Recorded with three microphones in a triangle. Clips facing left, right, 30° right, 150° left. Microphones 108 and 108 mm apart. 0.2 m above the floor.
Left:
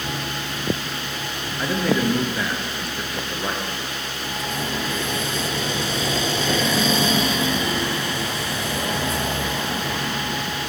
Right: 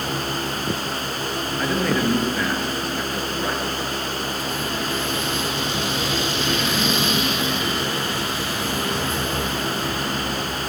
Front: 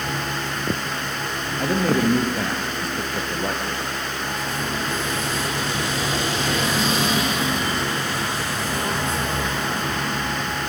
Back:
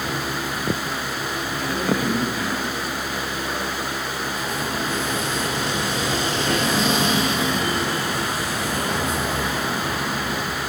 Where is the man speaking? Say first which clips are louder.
Left 1 dB, front 4 dB; 5° left, 3.5 m.